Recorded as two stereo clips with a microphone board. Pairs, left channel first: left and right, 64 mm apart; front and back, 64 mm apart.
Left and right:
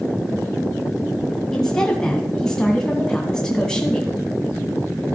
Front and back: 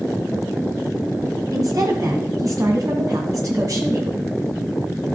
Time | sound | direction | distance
1.5 | a woman speaking | 170° left | 1.8 m